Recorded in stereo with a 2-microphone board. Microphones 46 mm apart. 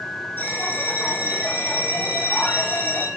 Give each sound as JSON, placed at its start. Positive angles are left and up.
{"t": 0.4, "sound": "a bell", "side_deg": 45, "distance_m": 4.5}